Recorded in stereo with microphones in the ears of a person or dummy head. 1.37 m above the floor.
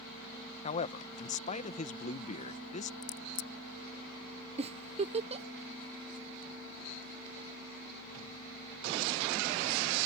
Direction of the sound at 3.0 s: 65° left (ahead or behind).